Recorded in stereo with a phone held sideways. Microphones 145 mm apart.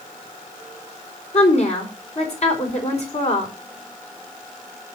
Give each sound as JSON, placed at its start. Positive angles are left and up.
{"t": 1.3, "sound": "a woman speaking", "side_deg": 50, "distance_m": 4.0}